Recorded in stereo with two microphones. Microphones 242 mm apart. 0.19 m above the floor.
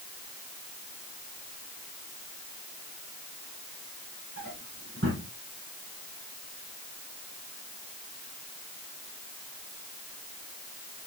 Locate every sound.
4.4 s a drawer: 60° right (ahead or behind), 4.5 m